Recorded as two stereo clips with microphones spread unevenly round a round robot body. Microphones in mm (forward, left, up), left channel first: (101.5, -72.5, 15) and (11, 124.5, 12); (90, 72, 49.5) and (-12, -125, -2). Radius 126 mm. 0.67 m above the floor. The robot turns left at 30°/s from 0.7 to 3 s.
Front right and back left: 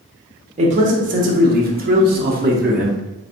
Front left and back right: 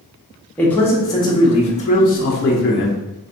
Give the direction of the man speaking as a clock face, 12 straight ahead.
7 o'clock.